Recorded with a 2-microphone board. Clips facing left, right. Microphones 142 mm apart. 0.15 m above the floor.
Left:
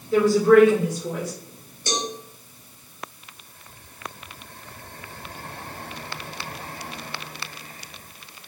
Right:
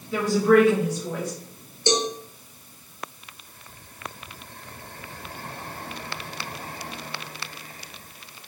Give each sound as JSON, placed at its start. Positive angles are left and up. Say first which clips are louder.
{"t": 0.1, "sound": "a woman speaking", "louder": "left 3 dB", "side_deg": 35, "distance_m": 1.8}
{"t": 1.9, "sound": "a cowbell", "louder": "right 5 dB", "side_deg": -25, "distance_m": 0.7}